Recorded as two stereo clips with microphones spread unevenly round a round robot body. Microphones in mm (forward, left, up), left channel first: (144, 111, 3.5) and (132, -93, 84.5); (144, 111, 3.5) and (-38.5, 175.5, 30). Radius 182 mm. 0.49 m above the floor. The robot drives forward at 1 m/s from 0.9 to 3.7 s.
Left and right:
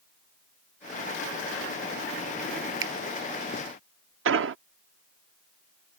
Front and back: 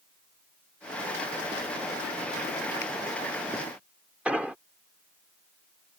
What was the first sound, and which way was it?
A finger snap, 75° right.